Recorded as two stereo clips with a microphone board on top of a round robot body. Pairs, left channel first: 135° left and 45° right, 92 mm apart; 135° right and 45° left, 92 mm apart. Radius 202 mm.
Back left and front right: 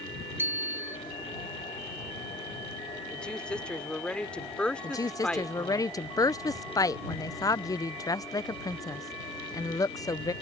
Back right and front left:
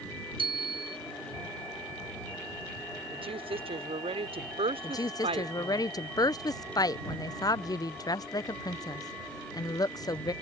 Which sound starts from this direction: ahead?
A bicycle bell, at 0.4 s.